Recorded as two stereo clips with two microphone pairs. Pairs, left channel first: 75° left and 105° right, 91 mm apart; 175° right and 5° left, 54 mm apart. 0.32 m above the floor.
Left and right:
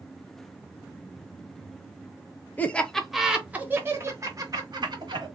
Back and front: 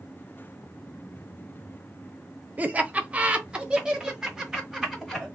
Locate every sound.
2.6 s laughter: 20° left, 0.9 m; by 5.3 s 85° right, 1.6 m